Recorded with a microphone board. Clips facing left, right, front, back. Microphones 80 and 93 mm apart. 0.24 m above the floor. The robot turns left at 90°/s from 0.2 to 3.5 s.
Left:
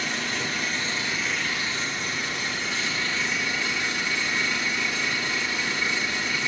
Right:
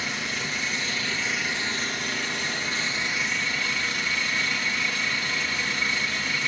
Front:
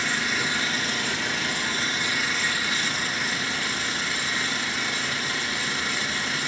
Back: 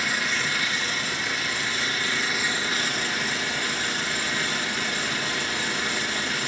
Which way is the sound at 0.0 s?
95° left.